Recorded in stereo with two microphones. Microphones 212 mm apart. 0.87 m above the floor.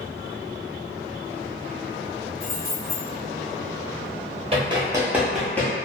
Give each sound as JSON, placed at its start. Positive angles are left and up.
{"t": 2.4, "sound": "keys jangling", "side_deg": 75, "distance_m": 1.3}
{"t": 4.5, "sound": "running footsteps", "side_deg": -30, "distance_m": 1.0}